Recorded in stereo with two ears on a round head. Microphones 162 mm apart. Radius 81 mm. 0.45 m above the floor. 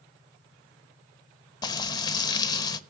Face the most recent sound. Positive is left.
turn(degrees=20)  # may be behind; listen again after turning